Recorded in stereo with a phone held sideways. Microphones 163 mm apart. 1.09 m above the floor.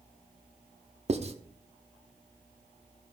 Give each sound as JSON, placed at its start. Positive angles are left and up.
{"t": 1.1, "sound": "writing", "side_deg": -40, "distance_m": 0.8}